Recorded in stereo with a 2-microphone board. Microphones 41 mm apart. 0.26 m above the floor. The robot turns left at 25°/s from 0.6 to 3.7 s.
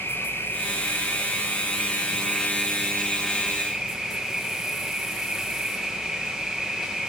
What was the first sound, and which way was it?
An insect, 70° left.